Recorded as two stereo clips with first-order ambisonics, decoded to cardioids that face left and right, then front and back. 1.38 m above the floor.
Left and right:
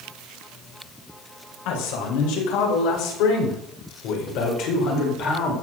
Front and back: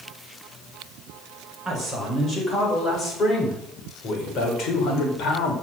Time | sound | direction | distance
1.6 | a man speaking | 85° left | 5 m